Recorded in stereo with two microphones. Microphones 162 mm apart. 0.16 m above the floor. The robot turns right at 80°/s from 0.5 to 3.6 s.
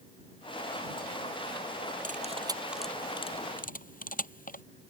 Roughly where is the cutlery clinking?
Right.